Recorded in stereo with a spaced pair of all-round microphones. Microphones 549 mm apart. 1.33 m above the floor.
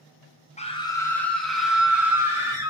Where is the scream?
10° left (ahead or behind), 0.8 m; by 2.7 s 5° right (ahead or behind), 1.9 m.